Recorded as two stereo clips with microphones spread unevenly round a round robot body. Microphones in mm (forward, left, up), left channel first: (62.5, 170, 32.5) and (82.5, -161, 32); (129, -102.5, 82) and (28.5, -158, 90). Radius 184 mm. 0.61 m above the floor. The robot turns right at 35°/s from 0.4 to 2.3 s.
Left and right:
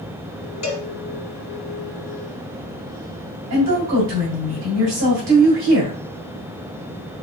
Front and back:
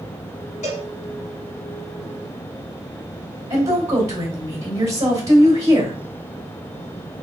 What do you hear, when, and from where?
0.6 s a cowbell: 55° left, 1.4 m; by 0.9 s 65° left, 1.4 m
3.5 s a woman speaking: 135° right, 2.5 m